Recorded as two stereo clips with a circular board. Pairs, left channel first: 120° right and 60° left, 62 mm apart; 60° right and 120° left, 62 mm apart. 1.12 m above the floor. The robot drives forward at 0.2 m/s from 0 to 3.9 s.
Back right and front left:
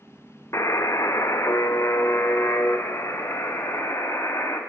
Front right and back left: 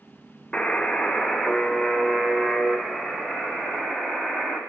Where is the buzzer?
130° right, 0.5 m; by 4.6 s 160° right, 1.0 m.